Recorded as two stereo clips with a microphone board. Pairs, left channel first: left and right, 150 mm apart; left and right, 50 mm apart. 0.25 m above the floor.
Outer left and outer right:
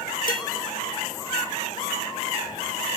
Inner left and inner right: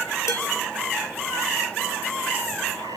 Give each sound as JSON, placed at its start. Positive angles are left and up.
{"t": 0.3, "sound": "dishes clattering", "side_deg": 75, "distance_m": 4.0}